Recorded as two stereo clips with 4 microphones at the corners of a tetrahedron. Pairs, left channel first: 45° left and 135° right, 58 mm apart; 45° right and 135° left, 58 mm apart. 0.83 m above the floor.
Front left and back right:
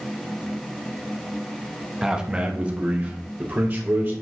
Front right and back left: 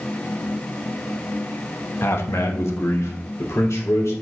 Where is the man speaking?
55° right, 1.2 m; by 4.1 s 80° right, 4 m.